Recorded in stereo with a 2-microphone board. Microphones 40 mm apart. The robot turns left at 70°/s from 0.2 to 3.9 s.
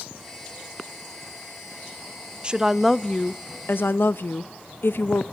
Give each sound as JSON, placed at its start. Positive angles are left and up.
{"t": 2.4, "sound": "a woman speaking", "azimuth_deg": -155, "distance_m": 0.6}